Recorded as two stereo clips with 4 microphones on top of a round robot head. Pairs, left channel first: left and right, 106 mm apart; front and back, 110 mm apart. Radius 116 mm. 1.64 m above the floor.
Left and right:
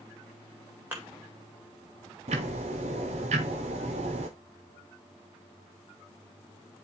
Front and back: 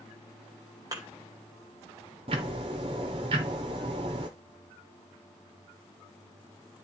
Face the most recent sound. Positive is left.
turn(degrees=-125)